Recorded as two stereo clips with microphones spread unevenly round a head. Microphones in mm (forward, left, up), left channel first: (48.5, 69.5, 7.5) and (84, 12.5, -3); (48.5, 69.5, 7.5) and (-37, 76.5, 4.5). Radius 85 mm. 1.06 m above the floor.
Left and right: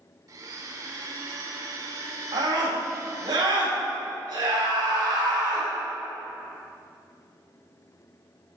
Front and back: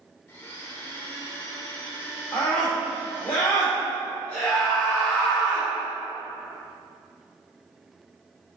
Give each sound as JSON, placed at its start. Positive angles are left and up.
{"t": 0.3, "sound": "a blender", "azimuth_deg": -55, "distance_m": 0.8}
{"t": 2.3, "sound": "a scream", "azimuth_deg": -85, "distance_m": 2.5}